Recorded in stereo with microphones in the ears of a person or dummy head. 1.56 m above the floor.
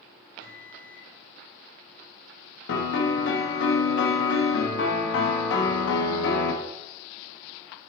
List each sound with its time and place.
0.4 s a microwave: 85° left, 3 m
2.7 s a piano: 70° left (ahead or behind), 1.5 m